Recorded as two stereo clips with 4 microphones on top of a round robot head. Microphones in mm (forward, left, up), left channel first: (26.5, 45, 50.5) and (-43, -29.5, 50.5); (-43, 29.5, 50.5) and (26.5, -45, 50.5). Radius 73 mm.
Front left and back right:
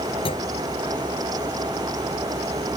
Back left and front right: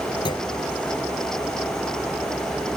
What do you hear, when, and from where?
0.2 s a clunk: 85° left